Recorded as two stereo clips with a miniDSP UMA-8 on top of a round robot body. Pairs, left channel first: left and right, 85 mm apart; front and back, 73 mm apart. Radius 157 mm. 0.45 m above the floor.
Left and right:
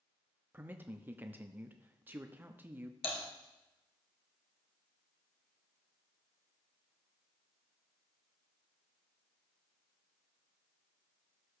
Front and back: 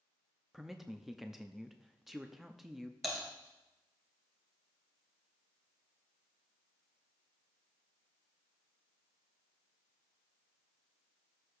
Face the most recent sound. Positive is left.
turn(degrees=90)